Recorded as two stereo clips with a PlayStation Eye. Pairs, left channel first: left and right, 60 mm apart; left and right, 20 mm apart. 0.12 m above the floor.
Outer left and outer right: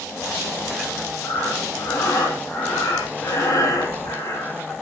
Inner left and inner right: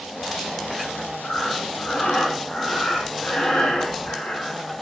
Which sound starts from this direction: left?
Breathing, at 1.2 s.